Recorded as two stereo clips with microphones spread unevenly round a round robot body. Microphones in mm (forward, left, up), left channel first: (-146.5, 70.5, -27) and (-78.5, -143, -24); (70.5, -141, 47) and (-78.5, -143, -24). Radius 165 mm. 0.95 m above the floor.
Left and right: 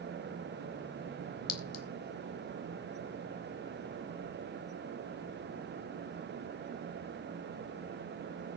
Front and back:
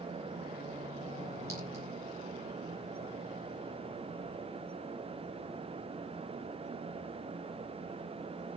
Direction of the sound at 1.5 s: 100° left.